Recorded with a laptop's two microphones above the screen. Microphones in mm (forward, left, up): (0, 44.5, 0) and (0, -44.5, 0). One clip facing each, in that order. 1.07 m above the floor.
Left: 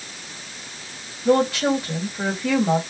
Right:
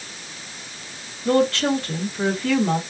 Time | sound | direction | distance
1.2 | a woman speaking | 15° left (ahead or behind) | 1.6 m